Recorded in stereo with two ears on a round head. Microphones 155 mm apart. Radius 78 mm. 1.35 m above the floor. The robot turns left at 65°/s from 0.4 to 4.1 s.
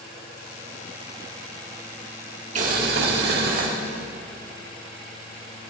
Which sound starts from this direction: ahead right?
Boiling, at 2.5 s.